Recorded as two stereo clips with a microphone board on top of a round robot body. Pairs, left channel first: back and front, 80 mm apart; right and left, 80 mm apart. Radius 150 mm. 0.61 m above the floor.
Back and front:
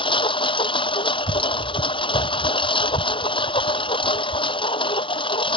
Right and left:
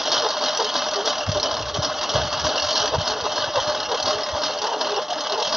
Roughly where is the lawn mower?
Behind.